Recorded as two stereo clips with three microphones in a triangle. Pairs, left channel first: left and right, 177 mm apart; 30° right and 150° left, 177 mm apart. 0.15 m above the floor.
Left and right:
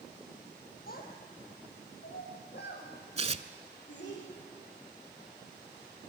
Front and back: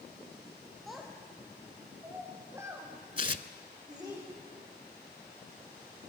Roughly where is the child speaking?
Ahead left.